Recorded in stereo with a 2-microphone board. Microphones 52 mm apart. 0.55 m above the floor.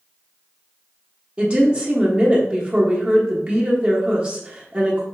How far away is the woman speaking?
About 1.2 m.